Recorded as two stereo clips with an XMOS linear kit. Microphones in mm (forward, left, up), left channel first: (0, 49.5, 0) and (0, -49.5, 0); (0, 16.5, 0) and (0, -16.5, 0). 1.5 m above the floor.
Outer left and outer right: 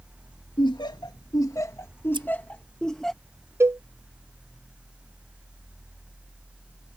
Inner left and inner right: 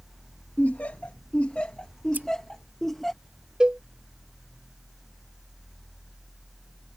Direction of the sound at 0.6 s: 50° left (ahead or behind).